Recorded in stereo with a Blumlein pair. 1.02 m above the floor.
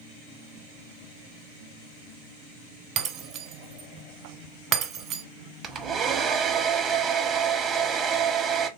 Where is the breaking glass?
35° right, 1.3 m.